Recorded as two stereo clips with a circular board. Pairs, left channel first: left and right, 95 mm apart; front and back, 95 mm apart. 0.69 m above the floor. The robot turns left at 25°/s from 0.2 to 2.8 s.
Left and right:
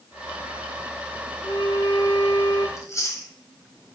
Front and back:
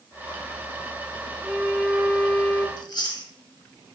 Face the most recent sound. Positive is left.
turn(degrees=35)